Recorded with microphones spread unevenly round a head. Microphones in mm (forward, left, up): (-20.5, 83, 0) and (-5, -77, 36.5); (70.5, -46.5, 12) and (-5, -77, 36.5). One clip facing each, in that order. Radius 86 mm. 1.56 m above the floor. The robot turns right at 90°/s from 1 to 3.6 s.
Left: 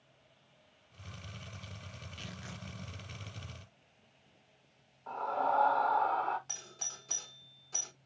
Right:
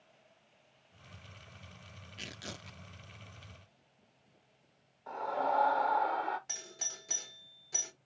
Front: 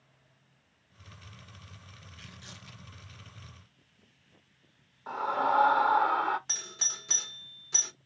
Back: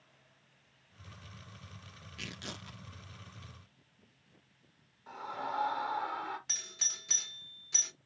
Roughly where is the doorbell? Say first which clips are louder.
Right 1 dB, front 5 dB; ahead.